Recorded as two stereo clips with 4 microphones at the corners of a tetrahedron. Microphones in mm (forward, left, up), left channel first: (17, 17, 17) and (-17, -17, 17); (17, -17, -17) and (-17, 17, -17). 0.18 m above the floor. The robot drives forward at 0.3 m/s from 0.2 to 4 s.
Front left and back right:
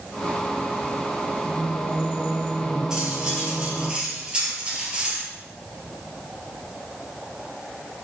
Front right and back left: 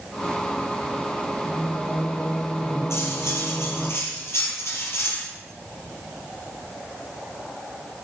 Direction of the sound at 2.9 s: 60° right.